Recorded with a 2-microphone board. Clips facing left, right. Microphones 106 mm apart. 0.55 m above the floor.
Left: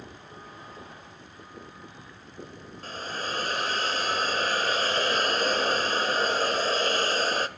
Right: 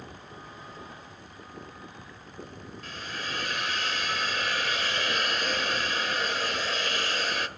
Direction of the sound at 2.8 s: 35° left (ahead or behind).